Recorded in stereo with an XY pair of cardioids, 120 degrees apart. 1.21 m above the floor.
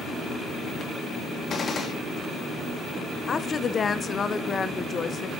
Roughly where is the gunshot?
Ahead left.